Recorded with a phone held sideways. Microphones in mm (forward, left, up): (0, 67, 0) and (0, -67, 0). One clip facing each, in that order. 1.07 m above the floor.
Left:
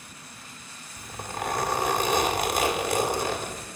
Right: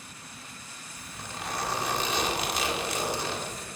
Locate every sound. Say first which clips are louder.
1.0 s a zipper: left 7 dB; 50° left (ahead or behind), 2.0 m